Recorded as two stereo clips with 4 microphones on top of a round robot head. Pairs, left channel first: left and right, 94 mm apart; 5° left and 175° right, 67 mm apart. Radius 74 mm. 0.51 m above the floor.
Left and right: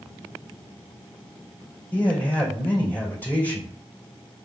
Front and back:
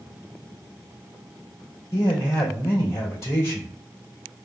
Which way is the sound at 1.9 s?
25° left.